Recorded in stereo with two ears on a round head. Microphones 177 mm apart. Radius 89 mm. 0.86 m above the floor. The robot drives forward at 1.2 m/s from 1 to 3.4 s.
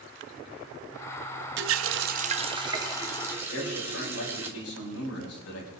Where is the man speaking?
80° left, 5 m.